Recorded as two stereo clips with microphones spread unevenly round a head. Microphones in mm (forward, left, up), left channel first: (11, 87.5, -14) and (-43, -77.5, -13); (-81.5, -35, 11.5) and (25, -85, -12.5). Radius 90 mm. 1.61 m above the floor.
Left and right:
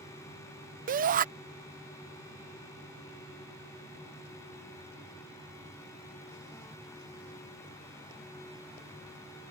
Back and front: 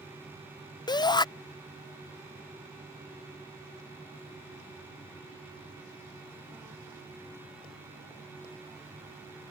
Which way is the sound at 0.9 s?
150° right.